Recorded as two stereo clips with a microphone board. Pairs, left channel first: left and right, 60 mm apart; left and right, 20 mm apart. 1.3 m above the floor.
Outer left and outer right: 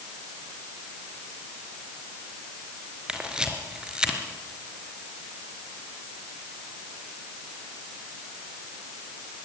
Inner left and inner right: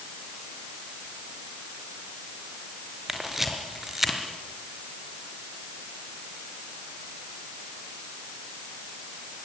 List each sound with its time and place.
3.1 s a camera shutter: 15° right (ahead or behind), 4 m